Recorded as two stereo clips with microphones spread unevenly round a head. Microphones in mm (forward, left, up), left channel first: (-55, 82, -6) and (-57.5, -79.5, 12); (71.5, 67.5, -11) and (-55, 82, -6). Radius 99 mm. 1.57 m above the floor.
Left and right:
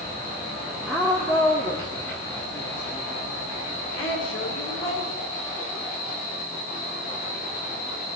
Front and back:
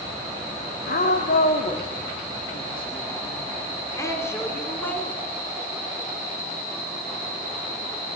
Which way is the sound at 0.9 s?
Straight ahead.